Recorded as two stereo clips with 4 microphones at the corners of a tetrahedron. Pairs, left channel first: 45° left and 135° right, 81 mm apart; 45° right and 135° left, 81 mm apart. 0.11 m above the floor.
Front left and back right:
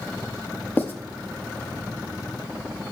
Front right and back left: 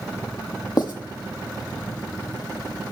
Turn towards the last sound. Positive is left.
turn(degrees=-20)